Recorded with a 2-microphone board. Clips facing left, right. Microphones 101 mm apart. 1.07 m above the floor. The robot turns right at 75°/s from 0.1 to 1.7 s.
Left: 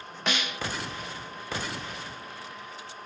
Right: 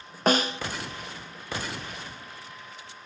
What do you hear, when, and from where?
0.3 s a snare drum: 40° right (ahead or behind), 0.5 m; by 0.6 s 25° right (ahead or behind), 0.5 m